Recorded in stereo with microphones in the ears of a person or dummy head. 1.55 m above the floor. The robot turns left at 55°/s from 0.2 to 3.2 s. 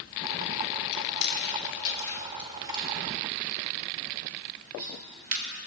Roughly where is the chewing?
Left.